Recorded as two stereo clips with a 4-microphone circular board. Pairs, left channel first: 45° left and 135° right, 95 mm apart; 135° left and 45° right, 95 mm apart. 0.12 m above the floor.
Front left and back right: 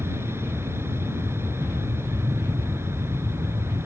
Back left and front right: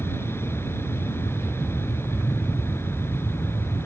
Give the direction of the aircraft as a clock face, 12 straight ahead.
6 o'clock.